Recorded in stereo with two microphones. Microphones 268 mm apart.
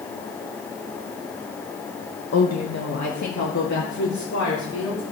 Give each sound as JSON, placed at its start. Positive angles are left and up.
{"t": 2.3, "sound": "a woman speaking", "side_deg": 60, "distance_m": 0.7}